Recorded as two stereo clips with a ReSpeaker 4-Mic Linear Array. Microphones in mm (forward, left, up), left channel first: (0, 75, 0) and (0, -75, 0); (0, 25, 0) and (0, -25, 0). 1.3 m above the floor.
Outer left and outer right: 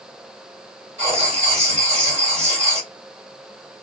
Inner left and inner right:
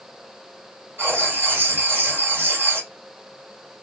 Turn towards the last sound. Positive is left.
turn(degrees=-45)  # may be behind; listen again after turning